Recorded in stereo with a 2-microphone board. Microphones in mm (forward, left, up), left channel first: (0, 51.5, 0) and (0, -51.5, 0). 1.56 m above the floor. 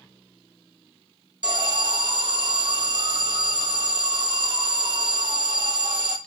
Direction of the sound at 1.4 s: 45° right (ahead or behind).